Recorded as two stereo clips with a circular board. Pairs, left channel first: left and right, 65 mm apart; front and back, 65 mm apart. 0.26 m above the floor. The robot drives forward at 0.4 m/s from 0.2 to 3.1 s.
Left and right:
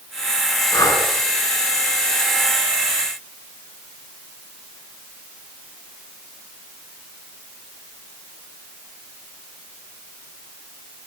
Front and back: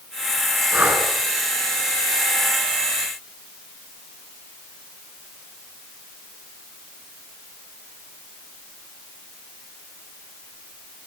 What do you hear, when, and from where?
0.7 s breathing: 115° left, 3.5 m